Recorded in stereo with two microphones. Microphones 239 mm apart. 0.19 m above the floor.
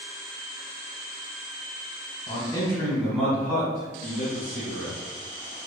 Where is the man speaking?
20° left (ahead or behind), 1.0 m; by 5.0 s 40° right (ahead or behind), 1.4 m.